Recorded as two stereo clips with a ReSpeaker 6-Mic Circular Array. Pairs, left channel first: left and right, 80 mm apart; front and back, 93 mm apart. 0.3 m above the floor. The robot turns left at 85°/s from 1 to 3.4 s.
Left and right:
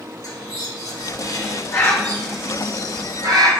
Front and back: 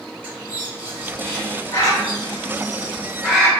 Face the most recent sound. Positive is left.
turn(degrees=-90)